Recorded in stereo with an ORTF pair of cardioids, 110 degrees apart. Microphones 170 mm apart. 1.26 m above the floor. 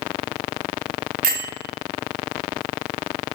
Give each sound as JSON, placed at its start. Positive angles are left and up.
{"t": 1.2, "sound": "a bell", "azimuth_deg": -60, "distance_m": 0.7}